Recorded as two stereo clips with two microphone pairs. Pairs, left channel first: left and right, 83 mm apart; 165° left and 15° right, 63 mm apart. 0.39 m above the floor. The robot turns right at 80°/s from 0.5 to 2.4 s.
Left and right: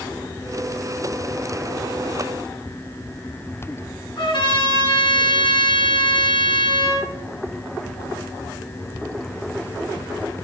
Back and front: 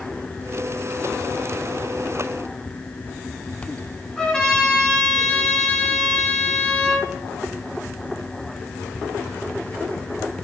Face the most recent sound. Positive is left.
turn(degrees=85)